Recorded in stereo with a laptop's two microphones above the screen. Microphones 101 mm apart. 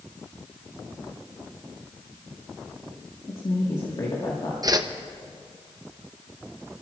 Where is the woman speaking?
50° left (ahead or behind), 1.6 m.